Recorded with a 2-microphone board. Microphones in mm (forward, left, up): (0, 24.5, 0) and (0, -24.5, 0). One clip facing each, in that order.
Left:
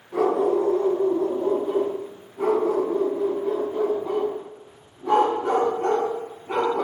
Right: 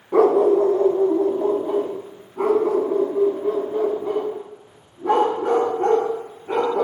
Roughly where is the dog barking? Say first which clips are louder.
Right 6 dB; right.